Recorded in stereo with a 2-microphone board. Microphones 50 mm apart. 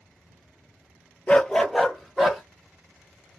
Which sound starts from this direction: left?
A dog barking, at 1.3 s.